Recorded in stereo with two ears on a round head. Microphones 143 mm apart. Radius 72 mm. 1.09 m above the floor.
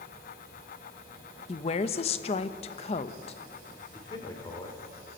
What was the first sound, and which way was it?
A woman speaking, 35° left (ahead or behind).